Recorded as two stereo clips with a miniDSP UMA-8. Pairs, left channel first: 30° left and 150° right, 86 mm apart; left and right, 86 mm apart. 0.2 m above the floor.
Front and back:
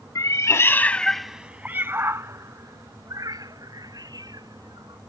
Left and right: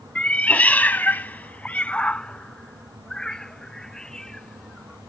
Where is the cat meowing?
20° left; by 5.0 s 175° left.